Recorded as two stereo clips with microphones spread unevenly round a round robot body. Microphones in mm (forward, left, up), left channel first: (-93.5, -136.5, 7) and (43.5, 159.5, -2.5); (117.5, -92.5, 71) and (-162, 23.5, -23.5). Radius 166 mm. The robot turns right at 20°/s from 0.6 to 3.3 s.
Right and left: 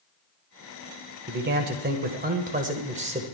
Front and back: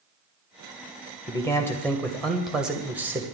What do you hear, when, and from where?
1.3 s a man speaking: 75° left, 1.5 m; by 3.2 s 115° left, 1.5 m